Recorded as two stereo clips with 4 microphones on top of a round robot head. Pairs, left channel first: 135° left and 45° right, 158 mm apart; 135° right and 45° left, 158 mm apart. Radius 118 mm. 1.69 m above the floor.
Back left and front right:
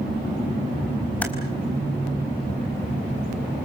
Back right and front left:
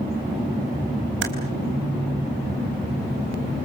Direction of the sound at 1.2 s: 55° left.